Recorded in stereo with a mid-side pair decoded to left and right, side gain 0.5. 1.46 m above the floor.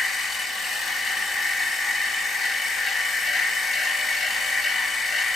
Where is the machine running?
45° left, 4.5 m.